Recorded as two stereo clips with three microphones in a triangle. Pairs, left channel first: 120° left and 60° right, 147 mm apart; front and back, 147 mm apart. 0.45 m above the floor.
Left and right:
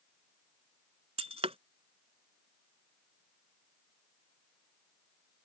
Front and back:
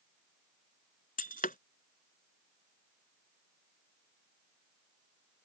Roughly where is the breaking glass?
Ahead.